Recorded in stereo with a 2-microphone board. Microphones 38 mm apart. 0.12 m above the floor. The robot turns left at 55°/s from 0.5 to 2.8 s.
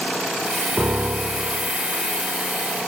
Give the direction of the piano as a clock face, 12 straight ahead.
4 o'clock.